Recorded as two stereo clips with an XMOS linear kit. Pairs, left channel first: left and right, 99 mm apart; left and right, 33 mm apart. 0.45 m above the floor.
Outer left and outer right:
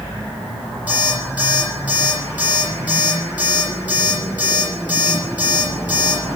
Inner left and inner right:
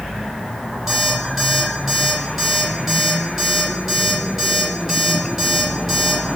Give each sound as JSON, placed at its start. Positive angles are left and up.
{"t": 0.9, "sound": "an alarm clock", "side_deg": -15, "distance_m": 9.5}